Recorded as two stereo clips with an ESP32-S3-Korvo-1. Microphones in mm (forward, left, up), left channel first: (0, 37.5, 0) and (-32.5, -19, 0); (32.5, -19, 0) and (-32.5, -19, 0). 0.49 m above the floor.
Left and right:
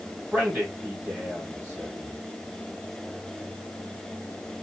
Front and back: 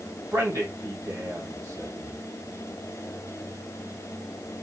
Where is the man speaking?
Straight behind, 2 m.